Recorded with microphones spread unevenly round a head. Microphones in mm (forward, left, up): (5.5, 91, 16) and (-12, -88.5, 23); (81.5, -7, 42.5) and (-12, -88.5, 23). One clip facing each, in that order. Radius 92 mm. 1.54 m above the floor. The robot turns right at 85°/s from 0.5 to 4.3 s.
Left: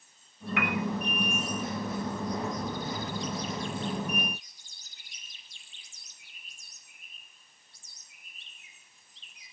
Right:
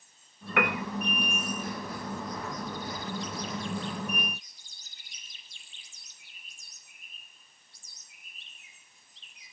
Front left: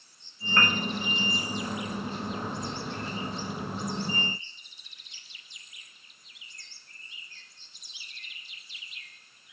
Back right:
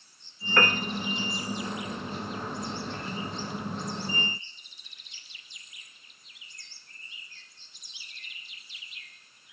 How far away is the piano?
About 2.5 m.